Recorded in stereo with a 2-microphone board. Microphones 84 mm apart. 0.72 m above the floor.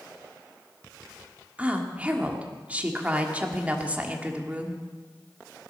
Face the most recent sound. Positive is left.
turn(degrees=-20)  # may be behind; listen again after turning